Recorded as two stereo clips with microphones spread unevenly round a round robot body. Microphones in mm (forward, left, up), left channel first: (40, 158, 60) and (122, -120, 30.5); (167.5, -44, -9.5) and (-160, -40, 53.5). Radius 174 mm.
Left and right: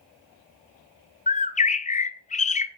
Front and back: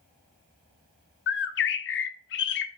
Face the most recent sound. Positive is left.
turn(degrees=40)